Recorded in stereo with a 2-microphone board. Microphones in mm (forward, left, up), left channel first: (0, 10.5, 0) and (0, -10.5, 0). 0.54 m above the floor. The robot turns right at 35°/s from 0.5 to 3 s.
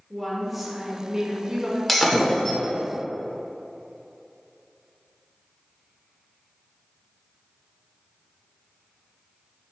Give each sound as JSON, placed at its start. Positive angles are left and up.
{"t": 0.1, "sound": "a woman speaking", "azimuth_deg": -175, "distance_m": 1.5}
{"t": 1.9, "sound": "breaking glass", "side_deg": 5, "distance_m": 0.9}